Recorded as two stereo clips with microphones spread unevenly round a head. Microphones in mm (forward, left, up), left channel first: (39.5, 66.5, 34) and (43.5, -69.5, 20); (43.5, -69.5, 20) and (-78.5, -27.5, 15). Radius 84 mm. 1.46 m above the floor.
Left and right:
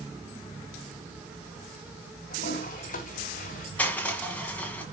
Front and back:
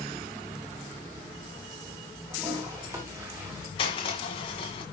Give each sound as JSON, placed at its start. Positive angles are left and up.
{"t": 2.3, "sound": "a toilet flushing", "azimuth_deg": 85, "distance_m": 2.5}
{"t": 3.8, "sound": "crushing", "azimuth_deg": 25, "distance_m": 1.8}